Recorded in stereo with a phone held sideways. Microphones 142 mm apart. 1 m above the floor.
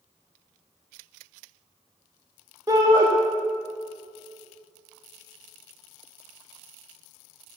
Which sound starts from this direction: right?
A shout, at 2.7 s.